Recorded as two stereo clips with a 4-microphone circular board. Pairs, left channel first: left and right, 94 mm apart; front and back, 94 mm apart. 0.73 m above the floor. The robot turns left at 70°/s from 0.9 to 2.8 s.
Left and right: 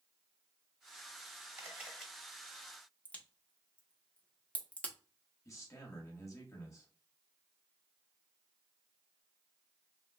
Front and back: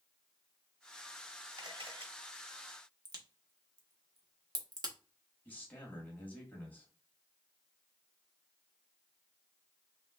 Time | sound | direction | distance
1.6 | a camera shutter | 150° right | 1.1 m
3.0 | a crack | 160° left | 0.8 m
5.5 | a man speaking | 60° left | 1.1 m